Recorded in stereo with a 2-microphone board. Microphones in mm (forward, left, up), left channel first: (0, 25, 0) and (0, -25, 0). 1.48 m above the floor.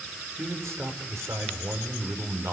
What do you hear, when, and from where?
0.4 s a man speaking: 65° right (ahead or behind), 5 m